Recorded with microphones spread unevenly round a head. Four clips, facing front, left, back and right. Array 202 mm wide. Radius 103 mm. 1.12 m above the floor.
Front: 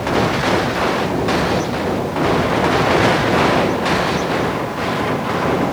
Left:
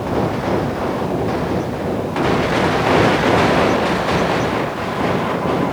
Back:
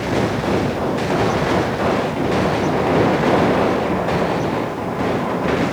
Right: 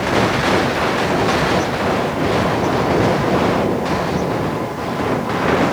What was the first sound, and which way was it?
Only background noise.